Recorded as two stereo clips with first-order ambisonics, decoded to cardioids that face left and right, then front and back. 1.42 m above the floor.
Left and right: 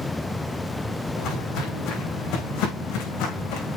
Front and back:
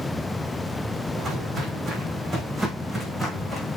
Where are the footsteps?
115° left, 4 m; by 3.8 s 90° left, 4.5 m.